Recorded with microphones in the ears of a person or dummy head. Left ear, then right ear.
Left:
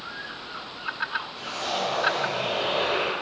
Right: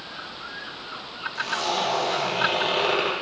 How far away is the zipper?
About 1.3 m.